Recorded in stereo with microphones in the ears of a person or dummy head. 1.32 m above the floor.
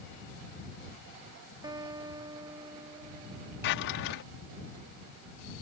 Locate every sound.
1.6 s a guitar: 25° right (ahead or behind)
3.6 s a drawer: 55° left (ahead or behind)